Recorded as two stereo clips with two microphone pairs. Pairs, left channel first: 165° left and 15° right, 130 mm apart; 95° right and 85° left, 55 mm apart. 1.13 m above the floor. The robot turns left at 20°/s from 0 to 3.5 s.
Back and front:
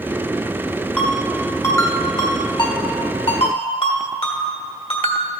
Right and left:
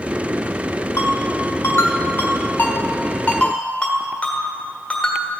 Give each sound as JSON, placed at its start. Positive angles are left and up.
{"t": 1.0, "sound": "a ringtone", "azimuth_deg": -115, "distance_m": 1.4}